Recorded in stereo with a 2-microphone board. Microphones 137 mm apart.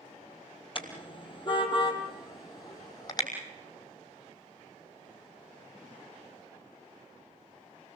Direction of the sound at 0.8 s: 40° left (ahead or behind).